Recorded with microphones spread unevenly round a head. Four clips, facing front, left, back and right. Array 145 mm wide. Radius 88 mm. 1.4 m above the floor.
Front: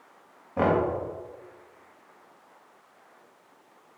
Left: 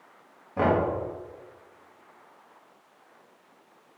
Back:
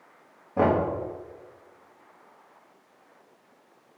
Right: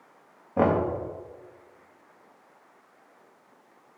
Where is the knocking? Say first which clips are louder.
Right 1 dB, back 1 dB; 115° right, 1.9 m.